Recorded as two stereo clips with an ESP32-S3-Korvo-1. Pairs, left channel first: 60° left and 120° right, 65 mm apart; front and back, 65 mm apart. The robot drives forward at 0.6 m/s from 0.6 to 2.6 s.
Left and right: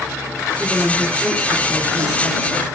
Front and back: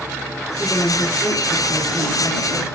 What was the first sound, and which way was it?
A woman speaking, 40° right.